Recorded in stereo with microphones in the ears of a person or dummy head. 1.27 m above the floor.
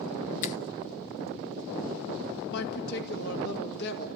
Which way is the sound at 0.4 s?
45° left (ahead or behind).